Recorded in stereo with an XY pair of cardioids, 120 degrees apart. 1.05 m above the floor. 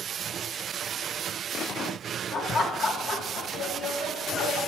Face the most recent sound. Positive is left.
turn(degrees=60)